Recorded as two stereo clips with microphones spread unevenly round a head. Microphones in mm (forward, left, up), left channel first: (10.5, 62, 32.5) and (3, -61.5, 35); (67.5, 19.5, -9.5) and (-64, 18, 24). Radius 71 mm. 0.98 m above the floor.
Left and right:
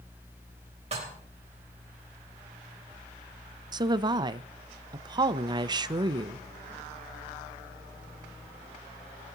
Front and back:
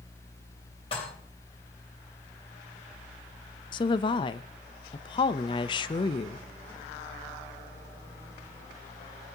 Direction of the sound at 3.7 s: 40° right.